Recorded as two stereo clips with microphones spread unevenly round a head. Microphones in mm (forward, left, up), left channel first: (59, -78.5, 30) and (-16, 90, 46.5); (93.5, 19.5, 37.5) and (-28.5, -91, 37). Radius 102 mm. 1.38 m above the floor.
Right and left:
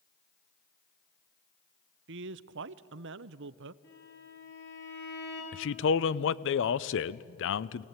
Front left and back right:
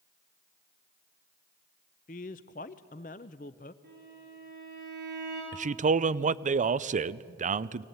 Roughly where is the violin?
Right.